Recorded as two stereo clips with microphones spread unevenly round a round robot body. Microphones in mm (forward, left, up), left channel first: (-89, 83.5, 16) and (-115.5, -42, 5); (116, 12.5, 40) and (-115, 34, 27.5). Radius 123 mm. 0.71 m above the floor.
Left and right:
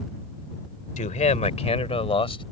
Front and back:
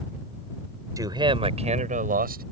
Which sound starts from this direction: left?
A man speaking, at 1.0 s.